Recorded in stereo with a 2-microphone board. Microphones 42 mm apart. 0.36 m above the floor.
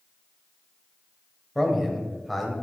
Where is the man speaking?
Centre (ahead or behind), 1.6 m.